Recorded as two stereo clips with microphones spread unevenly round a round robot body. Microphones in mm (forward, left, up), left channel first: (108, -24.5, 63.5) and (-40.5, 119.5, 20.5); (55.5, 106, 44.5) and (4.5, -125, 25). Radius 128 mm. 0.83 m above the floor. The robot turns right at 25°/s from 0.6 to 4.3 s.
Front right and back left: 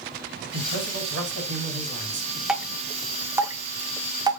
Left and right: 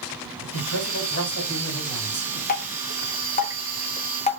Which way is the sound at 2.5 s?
75° left.